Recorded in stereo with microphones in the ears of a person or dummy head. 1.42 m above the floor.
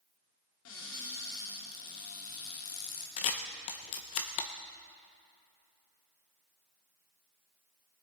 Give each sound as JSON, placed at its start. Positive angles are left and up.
{"t": 0.7, "sound": "a cupboard door", "side_deg": 75, "distance_m": 2.5}
{"t": 3.2, "sound": "a camera shutter", "side_deg": 35, "distance_m": 0.7}